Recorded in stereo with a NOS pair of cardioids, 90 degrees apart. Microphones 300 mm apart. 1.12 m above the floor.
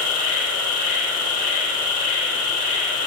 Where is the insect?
65° left, 0.9 m.